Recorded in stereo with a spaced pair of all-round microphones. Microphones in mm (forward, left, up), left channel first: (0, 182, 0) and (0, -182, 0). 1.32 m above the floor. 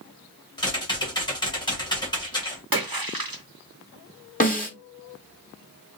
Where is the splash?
70° right (ahead or behind), 0.9 m.